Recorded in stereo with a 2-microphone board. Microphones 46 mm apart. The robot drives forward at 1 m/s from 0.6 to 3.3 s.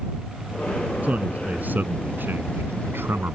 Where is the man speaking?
35° right (ahead or behind); by 3.4 s 60° right (ahead or behind).